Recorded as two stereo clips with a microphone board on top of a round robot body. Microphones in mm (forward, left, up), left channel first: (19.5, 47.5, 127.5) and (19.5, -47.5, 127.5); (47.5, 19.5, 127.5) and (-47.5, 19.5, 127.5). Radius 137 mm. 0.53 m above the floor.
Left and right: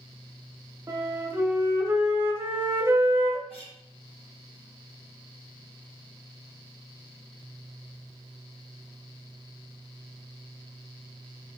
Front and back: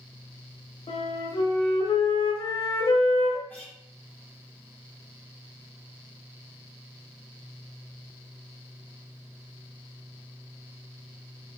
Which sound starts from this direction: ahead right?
A flute, at 0.9 s.